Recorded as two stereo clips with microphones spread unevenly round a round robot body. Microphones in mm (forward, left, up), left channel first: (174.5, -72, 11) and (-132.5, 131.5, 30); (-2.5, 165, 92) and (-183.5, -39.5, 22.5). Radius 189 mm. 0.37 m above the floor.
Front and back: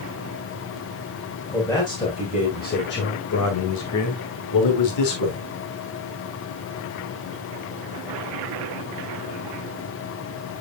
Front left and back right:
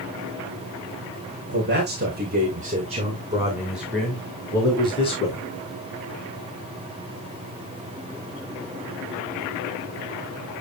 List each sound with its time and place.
1.5 s a man speaking: 115° right, 2.5 m; by 5.4 s 25° right, 2.5 m